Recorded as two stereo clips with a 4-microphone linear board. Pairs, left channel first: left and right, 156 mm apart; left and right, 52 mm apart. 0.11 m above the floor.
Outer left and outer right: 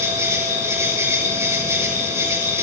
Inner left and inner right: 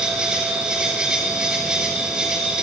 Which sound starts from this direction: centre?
An insect, at 0.0 s.